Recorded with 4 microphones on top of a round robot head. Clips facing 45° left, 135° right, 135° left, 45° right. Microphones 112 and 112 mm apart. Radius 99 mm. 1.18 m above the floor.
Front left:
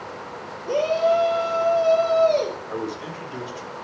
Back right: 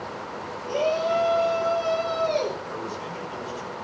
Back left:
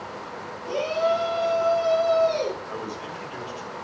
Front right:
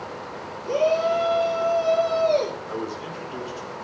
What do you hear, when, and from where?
0.7 s a shout: 5° left, 4.5 m; by 2.6 s 10° right, 4.5 m
2.7 s a man speaking: 15° left, 4.5 m